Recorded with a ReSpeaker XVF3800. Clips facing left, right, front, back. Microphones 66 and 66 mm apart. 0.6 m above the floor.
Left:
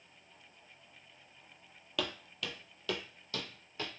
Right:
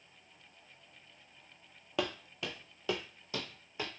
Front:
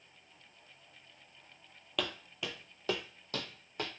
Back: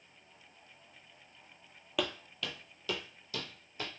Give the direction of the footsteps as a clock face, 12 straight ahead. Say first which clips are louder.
Right 3 dB, back 2 dB; 3 o'clock.